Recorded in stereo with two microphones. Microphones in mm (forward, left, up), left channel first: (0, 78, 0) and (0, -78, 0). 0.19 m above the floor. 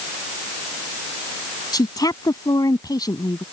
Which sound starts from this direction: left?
A woman speaking, at 1.7 s.